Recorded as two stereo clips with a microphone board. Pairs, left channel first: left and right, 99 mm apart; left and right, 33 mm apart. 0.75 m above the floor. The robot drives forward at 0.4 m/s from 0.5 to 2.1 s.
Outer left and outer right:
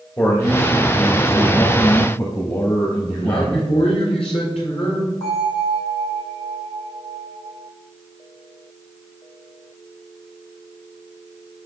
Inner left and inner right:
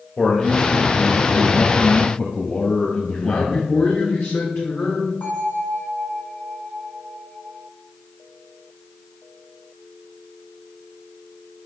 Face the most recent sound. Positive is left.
turn(degrees=70)  # may be behind; listen again after turning